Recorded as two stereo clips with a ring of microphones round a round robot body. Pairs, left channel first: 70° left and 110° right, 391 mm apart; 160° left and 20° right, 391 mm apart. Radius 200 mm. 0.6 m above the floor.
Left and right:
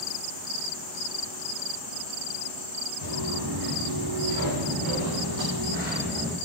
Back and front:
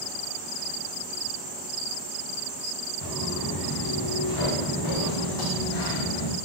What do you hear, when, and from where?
3.0 s footsteps: 150° right, 2.5 m; by 6.4 s 165° left, 1.1 m